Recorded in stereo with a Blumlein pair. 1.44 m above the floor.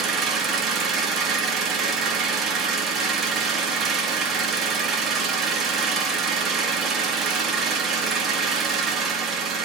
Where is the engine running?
20° right, 1.4 m.